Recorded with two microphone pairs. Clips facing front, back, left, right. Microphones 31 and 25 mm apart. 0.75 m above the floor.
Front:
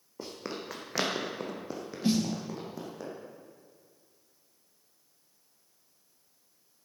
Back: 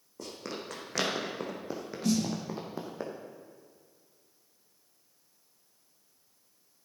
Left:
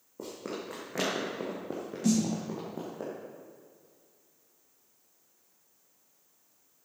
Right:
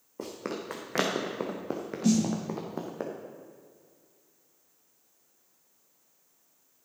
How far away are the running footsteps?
About 2.5 m.